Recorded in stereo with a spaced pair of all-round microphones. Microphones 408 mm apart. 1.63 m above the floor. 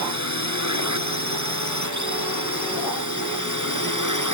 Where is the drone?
40° right (ahead or behind); by 4.3 s 45° right (ahead or behind).